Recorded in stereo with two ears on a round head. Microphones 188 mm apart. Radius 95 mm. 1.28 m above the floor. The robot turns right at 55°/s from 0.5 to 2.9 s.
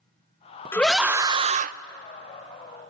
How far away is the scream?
About 0.6 m.